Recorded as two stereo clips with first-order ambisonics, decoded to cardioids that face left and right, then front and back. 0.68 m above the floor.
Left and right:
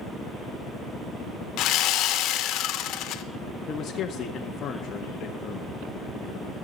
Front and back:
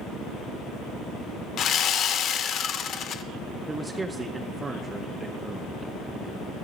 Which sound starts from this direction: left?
A man speaking, at 3.7 s.